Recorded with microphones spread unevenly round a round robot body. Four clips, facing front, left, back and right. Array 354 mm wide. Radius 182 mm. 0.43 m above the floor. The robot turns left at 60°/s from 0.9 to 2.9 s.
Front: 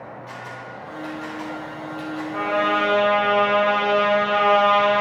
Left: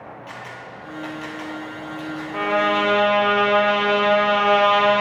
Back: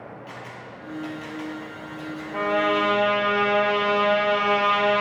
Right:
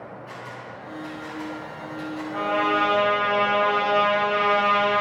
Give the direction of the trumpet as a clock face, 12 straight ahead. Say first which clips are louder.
Left 3 dB, front 1 dB; 7 o'clock.